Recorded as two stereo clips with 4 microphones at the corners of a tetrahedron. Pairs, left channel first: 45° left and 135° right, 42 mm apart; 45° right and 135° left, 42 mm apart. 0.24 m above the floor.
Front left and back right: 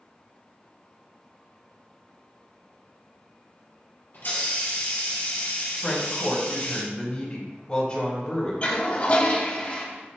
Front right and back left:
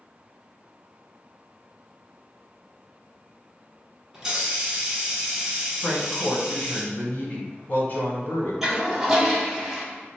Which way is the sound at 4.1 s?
60° left.